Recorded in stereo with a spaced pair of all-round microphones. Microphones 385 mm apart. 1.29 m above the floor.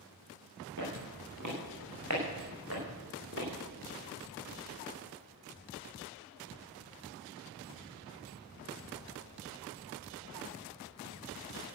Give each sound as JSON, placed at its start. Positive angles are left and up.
{"t": 0.8, "sound": "footsteps", "side_deg": -50, "distance_m": 6.5}